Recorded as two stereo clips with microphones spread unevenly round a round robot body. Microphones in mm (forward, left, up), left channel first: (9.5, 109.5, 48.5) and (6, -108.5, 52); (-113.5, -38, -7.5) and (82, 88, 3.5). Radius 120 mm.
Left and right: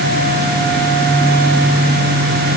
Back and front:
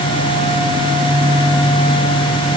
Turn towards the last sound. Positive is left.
No sound to turn to.